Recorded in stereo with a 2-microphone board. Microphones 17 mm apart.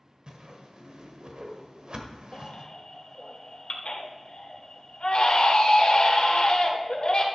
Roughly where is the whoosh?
Right.